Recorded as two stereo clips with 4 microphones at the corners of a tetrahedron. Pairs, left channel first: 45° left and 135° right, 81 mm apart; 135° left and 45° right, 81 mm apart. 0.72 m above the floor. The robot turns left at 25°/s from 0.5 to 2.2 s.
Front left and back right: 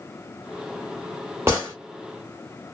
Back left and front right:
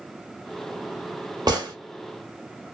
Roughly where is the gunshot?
Right.